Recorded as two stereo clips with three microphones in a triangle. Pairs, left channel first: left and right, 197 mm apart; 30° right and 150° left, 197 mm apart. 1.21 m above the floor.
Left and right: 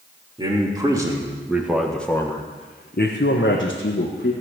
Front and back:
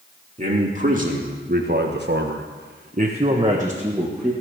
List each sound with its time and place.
0.4 s a man speaking: 155° right, 3 m; by 4.3 s 65° left, 2 m